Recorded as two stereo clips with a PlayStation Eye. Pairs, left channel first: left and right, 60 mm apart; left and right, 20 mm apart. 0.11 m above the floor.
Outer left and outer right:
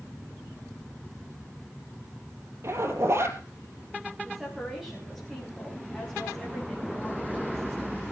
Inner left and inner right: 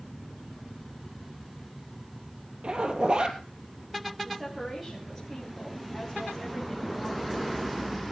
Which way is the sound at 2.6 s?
45° right (ahead or behind).